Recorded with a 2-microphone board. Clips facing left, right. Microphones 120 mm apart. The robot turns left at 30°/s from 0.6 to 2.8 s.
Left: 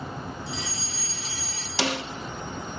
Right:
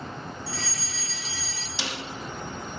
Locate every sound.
0.5 s a fire alarm: 160° left, 4 m; by 1.7 s 125° left, 4 m
1.8 s a snare drum: 80° left, 1.3 m; by 2.0 s 75° left (ahead or behind), 1.3 m